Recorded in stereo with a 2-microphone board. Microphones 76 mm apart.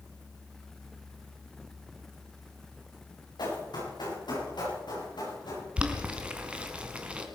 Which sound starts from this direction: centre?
Boiling, at 5.8 s.